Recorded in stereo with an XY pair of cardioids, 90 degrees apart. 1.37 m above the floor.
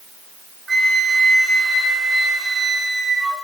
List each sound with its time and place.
0.7 s a flute: 35° right, 3.5 m